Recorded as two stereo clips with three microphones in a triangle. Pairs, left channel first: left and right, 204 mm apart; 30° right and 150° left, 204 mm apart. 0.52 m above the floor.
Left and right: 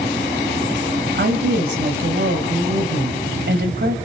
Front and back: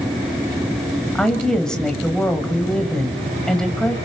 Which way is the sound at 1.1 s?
115° right.